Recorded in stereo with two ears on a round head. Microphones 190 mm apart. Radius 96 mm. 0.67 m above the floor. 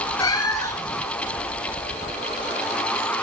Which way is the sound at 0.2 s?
15° left (ahead or behind).